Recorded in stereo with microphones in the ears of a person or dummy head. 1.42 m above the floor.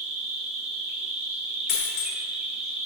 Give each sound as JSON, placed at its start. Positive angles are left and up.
{"t": 0.0, "sound": "an insect", "side_deg": -5, "distance_m": 0.9}
{"t": 1.7, "sound": "a dropped coin", "side_deg": 50, "distance_m": 1.4}